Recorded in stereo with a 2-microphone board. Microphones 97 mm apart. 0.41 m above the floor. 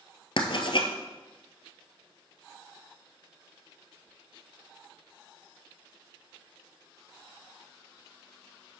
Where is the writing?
60° left (ahead or behind), 1.3 m.